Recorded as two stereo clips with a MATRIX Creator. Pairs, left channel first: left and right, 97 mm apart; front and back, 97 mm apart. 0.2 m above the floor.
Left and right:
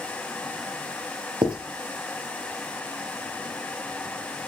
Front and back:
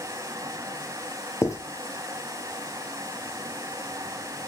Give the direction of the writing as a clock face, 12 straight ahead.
2 o'clock.